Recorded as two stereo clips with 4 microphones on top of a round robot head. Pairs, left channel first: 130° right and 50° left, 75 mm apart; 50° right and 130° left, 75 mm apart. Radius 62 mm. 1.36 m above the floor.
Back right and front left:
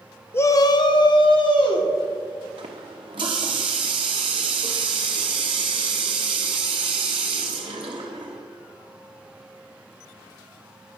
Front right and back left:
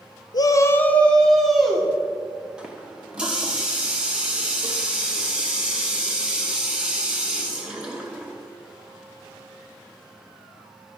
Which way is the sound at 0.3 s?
70° right.